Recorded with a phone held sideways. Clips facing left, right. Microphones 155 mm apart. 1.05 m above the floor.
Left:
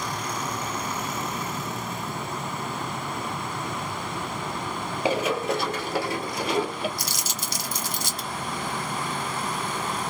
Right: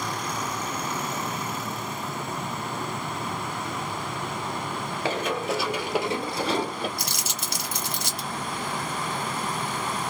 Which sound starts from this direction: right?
Crumpling, at 7.0 s.